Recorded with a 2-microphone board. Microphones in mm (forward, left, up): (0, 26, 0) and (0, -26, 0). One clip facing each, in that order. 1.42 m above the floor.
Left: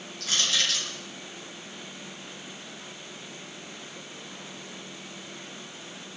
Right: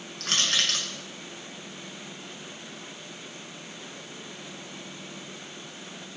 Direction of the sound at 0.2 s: 55° right (ahead or behind).